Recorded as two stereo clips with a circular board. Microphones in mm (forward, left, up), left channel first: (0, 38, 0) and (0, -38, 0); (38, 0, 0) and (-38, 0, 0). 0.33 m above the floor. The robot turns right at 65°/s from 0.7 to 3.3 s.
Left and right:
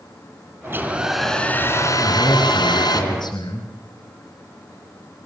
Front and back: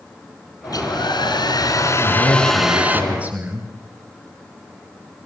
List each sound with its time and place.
0.6 s a hair dryer: 30° right, 3 m; by 3.0 s 120° left, 3 m
2.0 s a man speaking: 30° left, 4 m; by 3.7 s 115° left, 4 m